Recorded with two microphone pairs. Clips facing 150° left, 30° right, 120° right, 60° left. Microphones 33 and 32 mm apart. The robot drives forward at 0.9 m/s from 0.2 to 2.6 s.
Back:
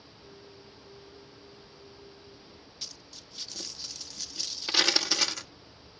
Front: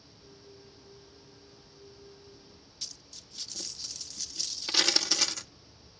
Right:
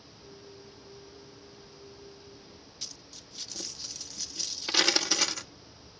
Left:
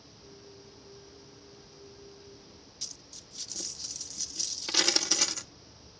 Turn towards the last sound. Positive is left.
turn(degrees=-155)